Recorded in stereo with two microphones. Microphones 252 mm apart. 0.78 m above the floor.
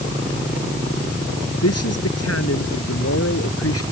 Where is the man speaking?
70° left (ahead or behind); by 3.8 s 65° left (ahead or behind).